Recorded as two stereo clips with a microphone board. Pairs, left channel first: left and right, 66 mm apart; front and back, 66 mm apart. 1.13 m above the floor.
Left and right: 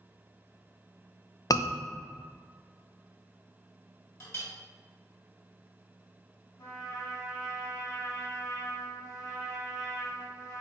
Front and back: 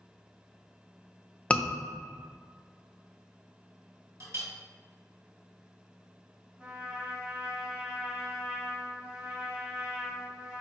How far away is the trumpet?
About 1.7 m.